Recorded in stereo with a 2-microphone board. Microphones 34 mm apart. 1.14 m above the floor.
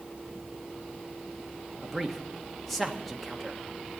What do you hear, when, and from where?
1.8 s a man speaking: 5° left (ahead or behind), 1.3 m